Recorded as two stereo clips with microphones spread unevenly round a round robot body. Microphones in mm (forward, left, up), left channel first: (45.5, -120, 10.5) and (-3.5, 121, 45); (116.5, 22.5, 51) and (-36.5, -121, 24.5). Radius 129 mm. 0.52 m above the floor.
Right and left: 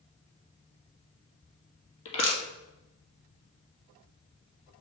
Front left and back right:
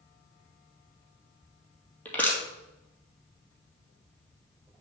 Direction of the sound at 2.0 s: 35° right.